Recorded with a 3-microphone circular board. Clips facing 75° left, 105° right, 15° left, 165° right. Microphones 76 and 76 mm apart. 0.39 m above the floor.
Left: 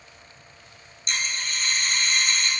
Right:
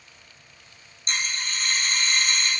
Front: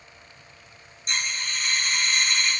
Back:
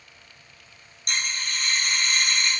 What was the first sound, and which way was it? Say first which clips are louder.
A dropped coin: even, even; 150° right.